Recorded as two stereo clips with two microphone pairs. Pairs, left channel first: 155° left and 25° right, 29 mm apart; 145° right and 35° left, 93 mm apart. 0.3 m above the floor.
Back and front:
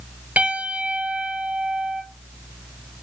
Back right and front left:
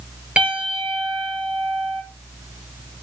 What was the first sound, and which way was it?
A piano, 45° right.